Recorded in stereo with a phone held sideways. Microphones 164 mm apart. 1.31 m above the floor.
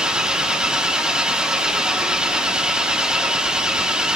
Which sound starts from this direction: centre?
An engine running, at 0.0 s.